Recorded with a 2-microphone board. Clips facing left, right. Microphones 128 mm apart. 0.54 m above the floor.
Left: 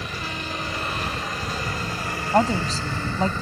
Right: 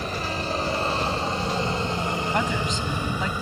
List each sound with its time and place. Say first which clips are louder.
0.0 s a helicopter: right 4 dB; 35° right (ahead or behind); by 3.4 s 10° right (ahead or behind)
2.3 s a woman speaking: left 5 dB; 40° left (ahead or behind)